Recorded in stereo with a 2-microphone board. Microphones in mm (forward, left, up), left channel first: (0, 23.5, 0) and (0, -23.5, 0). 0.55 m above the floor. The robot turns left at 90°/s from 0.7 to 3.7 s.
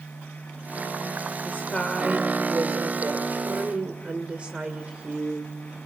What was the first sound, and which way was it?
A woman speaking, 50° left.